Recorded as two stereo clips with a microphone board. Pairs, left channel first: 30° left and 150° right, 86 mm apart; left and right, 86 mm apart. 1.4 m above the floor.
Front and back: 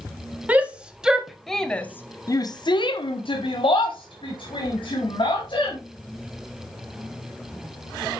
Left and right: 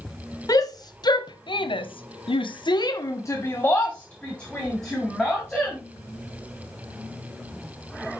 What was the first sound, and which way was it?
A shout, 135° left.